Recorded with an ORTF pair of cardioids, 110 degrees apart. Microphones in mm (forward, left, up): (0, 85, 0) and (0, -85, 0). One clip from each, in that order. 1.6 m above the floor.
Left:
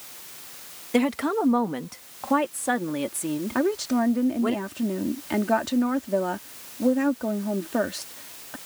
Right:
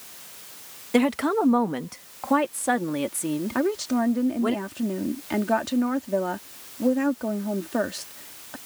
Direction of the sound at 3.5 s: 5° right.